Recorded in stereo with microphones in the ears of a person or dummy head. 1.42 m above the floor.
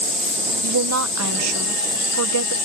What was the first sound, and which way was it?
A woman speaking, 80° right.